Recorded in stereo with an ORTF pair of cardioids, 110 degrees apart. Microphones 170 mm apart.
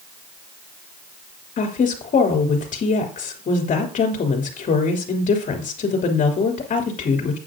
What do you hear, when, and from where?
1.6 s a woman speaking: 50° left, 3 m